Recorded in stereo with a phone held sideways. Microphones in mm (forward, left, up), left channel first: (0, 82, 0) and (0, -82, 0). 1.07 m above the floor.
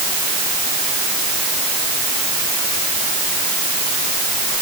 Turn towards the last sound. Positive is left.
No sound to turn to.